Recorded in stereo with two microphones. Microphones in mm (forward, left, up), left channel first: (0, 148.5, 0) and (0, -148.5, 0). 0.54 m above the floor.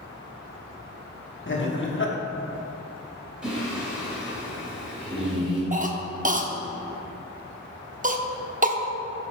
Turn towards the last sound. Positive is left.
turn(degrees=-25)  # may be behind; listen again after turning